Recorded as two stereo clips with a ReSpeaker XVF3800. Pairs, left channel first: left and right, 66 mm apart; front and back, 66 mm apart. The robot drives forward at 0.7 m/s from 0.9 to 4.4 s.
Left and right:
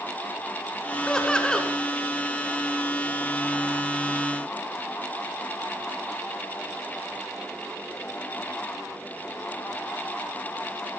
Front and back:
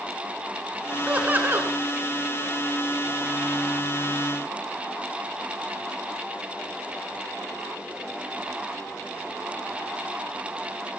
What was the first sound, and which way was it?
Laughter, 145° left.